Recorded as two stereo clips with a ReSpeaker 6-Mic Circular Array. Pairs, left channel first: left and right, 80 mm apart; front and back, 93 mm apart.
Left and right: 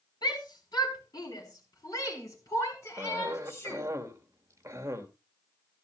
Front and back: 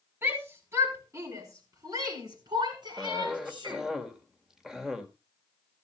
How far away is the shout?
About 4.5 m.